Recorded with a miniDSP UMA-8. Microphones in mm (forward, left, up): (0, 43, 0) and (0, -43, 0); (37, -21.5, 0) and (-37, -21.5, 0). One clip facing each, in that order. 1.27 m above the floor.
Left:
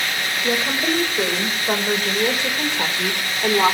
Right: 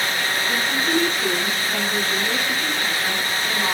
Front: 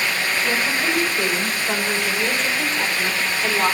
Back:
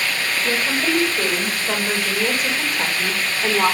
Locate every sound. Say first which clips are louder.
0.4 s a woman speaking: left 5 dB, back 2 dB; 100° left, 7.5 m; by 3.8 s 105° left, 5 m